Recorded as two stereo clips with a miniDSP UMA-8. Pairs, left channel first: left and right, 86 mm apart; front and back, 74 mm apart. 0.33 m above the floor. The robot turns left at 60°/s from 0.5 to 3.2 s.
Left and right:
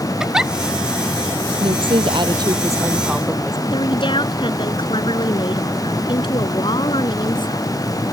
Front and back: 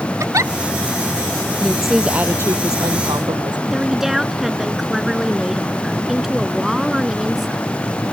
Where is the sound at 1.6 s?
75° right; by 3.6 s 170° right.